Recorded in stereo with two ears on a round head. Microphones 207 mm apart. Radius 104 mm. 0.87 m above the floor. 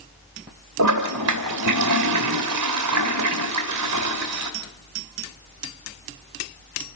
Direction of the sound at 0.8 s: 80° right.